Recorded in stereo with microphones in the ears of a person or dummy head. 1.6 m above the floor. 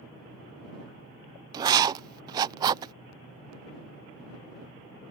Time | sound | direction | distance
1.5 | writing | 25° right (ahead or behind) | ?